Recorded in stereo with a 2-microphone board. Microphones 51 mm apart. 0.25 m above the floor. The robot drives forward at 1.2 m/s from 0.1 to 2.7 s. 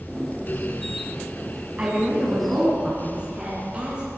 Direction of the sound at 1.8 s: 25° right (ahead or behind).